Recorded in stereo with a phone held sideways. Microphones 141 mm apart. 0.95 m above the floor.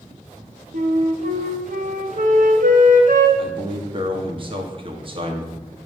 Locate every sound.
0.7 s a flute: 70° right (ahead or behind), 1.0 m
3.4 s a man speaking: 40° right (ahead or behind), 1.4 m